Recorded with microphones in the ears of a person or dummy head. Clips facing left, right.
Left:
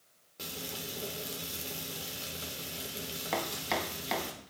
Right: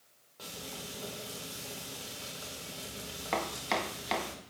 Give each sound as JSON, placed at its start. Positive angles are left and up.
{"t": 0.4, "sound": "frying", "side_deg": 35, "distance_m": 3.0}
{"t": 3.3, "sound": "chopping", "side_deg": 0, "distance_m": 1.2}